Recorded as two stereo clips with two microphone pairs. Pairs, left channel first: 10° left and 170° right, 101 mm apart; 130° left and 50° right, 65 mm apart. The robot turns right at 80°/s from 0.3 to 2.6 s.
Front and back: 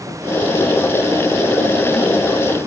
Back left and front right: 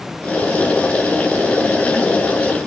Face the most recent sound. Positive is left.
No sound to turn to.